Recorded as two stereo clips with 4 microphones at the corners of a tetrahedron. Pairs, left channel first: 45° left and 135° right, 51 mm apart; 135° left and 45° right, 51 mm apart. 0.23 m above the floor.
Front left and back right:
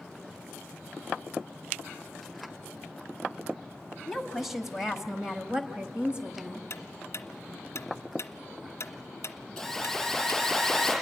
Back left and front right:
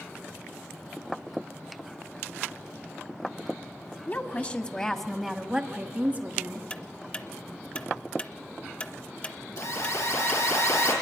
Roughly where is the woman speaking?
Behind left.